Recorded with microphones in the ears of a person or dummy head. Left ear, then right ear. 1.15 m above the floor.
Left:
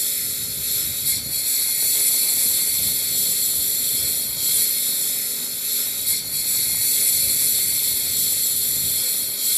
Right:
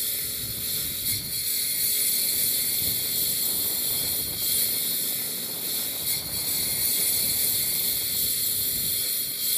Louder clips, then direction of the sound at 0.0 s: Left 5 dB; 10° left (ahead or behind).